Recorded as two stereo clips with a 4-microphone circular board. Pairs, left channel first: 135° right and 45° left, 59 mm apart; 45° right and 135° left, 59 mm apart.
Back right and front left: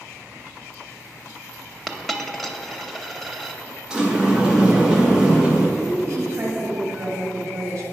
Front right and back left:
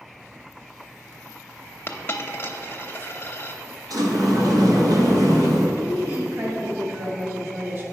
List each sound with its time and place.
1.9 s a dropped coin: 45° right, 0.7 m
3.9 s a sliding door: 120° left, 1.3 m
5.8 s a woman speaking: 85° left, 2.0 m